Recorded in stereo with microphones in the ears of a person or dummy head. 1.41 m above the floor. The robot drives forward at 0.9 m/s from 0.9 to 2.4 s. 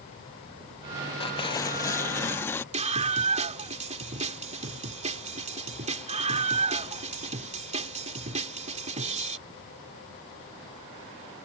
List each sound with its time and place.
1.2 s tearing paper: 30° left (ahead or behind); by 2.6 s 15° left (ahead or behind)
2.7 s a scream: 30° right (ahead or behind)